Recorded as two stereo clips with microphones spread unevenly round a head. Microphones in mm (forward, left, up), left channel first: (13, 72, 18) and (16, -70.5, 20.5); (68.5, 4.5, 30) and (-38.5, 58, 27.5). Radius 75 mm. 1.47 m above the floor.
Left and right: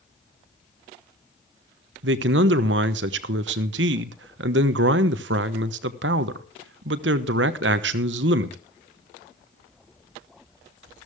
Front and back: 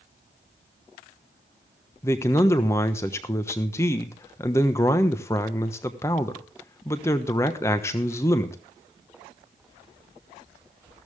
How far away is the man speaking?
About 1.1 m.